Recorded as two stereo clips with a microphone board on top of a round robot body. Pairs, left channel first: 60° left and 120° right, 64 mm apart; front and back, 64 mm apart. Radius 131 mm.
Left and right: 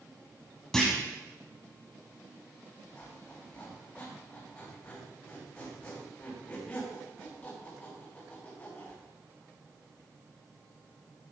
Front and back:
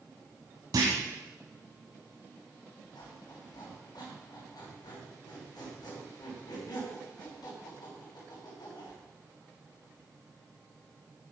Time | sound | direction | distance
0.7 | a clunk | 145° left | 1.3 m
3.0 | a squeak | 10° right | 3.5 m